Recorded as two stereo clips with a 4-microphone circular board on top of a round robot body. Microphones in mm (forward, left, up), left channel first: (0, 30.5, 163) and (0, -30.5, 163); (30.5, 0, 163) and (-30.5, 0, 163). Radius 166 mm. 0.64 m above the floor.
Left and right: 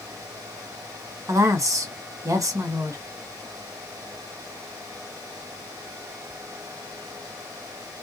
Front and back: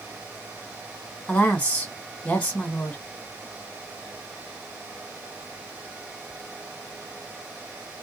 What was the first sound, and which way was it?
A woman speaking, 75° right.